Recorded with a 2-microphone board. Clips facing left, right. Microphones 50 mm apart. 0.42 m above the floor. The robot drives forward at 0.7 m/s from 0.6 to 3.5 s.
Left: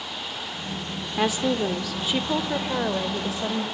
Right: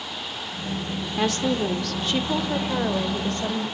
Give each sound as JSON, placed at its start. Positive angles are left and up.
{"t": 1.2, "sound": "a woman speaking", "side_deg": 10, "distance_m": 0.8}